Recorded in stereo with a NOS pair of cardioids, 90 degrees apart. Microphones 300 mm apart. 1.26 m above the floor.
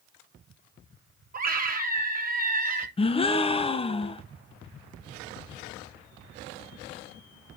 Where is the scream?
30° right, 3.5 m.